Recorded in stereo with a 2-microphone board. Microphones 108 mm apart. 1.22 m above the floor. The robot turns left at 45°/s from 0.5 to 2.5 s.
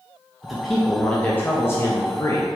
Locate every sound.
0.4 s a man speaking: centre (ahead or behind), 0.6 m; by 2.5 s 30° left (ahead or behind), 0.6 m